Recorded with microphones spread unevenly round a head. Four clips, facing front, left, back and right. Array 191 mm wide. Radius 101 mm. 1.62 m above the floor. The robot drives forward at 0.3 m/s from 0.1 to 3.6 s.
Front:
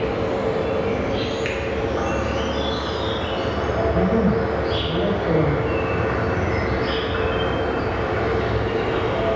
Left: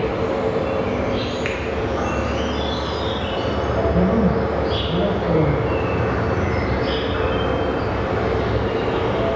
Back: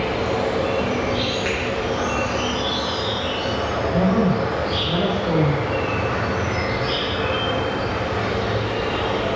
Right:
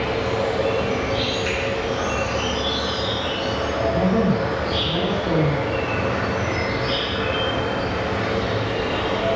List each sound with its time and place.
0.0 s an insect: 30° left, 1.2 m; by 9.3 s 90° left, 0.6 m
1.4 s a finger snap: 100° left, 0.5 m; by 1.6 s 110° left, 0.5 m
3.9 s a woman speaking: 145° left, 1.7 m